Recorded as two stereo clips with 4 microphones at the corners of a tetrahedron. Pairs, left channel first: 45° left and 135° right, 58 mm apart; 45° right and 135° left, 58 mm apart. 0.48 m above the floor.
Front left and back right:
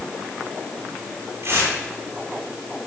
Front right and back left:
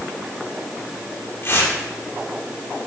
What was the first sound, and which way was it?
Tearing paper, 90° right.